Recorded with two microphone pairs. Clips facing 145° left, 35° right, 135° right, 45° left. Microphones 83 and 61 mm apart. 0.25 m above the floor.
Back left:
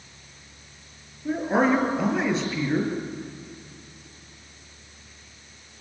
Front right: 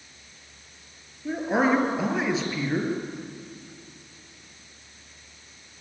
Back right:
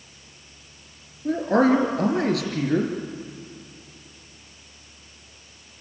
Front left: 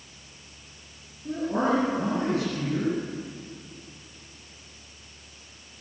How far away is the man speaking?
About 5 m.